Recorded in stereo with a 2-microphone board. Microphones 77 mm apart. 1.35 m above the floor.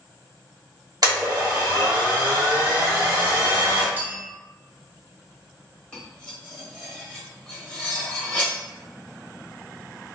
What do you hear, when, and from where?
1.0 s a blender: 55° right (ahead or behind), 1.5 m
4.0 s a clink: 25° right (ahead or behind), 0.5 m
5.9 s cutlery clinking: 15° left (ahead or behind), 1.2 m